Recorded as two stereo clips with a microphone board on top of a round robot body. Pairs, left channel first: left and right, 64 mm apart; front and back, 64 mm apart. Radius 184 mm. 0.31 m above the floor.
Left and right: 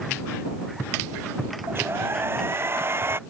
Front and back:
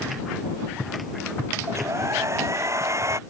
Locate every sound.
1.7 s a hair dryer: 140° right